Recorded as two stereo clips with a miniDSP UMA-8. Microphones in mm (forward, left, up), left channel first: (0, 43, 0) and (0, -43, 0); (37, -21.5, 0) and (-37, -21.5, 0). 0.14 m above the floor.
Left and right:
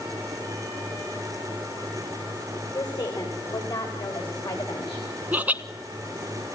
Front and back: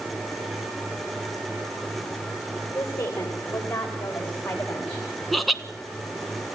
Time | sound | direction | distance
2.7 | a woman speaking | 55° left | 9.5 m
5.3 | laughter | 90° right | 1.1 m